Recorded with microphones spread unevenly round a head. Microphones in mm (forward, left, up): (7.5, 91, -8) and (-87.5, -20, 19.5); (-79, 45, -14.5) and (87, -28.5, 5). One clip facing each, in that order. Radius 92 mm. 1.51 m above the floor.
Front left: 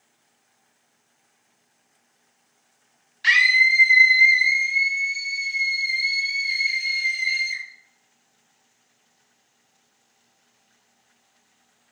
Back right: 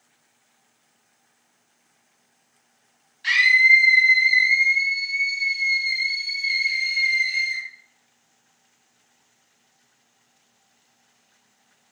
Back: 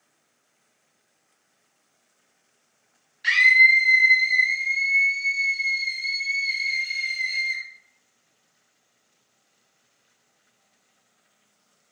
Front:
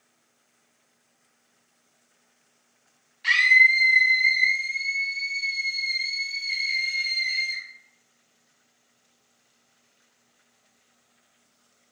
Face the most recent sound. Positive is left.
turn(degrees=105)